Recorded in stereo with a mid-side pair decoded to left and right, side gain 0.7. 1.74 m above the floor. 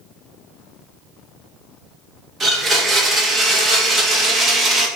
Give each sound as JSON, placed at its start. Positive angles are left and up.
{"t": 2.4, "sound": "a blender", "azimuth_deg": -25, "distance_m": 2.0}